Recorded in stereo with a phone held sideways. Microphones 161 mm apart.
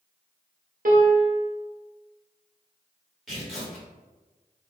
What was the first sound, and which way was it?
A piano, 60° right (ahead or behind).